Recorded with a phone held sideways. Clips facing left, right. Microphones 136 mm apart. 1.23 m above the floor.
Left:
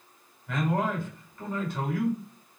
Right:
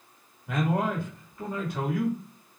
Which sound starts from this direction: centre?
A man speaking, at 0.5 s.